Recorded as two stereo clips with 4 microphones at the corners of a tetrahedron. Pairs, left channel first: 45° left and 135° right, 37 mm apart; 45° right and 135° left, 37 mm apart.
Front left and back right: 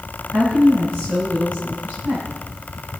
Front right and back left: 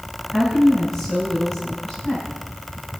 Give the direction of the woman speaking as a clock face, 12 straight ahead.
4 o'clock.